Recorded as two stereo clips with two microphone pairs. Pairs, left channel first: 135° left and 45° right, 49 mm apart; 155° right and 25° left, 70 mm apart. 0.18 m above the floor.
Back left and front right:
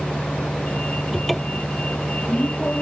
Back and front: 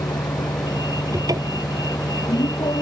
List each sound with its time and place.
0.0 s a vehicle: 165° right
1.1 s a cupboard door: 45° left